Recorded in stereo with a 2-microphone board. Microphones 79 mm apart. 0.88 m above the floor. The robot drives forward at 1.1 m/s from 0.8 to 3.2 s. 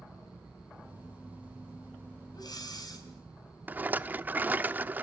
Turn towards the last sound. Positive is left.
turn(degrees=-25)  # may be behind; listen again after turning